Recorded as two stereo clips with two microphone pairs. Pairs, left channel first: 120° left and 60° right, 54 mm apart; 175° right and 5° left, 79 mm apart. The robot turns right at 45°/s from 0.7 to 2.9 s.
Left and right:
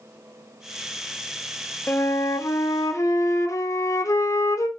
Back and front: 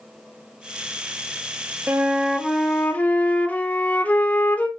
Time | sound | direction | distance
1.9 | a flute | 70° left | 1.0 m